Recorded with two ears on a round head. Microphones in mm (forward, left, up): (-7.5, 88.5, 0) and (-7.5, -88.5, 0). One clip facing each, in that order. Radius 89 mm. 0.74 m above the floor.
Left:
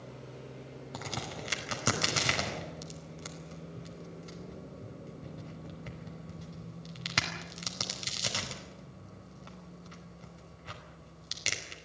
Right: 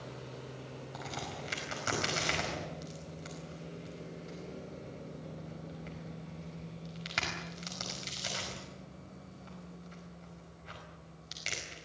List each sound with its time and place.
0.9 s a crack: 60° left (ahead or behind), 5 m